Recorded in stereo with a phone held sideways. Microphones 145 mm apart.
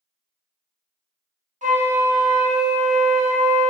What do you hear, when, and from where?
1.6 s a flute: 60° right (ahead or behind), 0.7 m